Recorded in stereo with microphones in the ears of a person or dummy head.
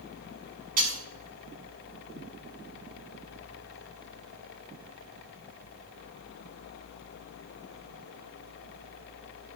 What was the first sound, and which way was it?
Breaking glass, 50° right (ahead or behind).